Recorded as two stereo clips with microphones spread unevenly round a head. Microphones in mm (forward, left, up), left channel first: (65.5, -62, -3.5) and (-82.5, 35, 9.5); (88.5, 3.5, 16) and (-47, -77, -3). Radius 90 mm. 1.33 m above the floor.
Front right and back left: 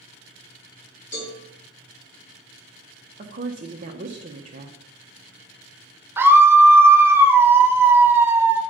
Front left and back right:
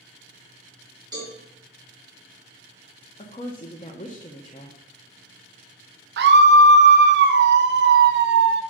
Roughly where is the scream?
Behind right.